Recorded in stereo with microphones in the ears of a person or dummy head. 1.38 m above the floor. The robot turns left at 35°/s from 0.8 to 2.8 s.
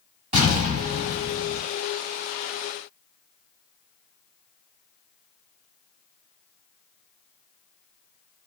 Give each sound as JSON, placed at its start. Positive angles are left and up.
{"t": 0.3, "sound": "an explosion", "side_deg": -35, "distance_m": 1.4}